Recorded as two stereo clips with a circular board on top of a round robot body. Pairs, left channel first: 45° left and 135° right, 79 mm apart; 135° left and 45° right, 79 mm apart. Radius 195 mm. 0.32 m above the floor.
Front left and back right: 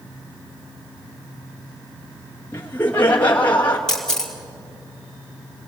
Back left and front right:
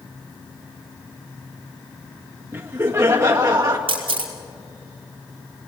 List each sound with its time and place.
2.5 s laughter: straight ahead, 1.7 m; by 3.8 s 20° right, 2 m
3.9 s a camera shutter: 40° right, 4 m